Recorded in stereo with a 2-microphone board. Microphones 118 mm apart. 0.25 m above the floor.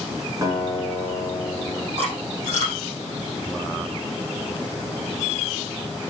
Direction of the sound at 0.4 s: 30° right (ahead or behind).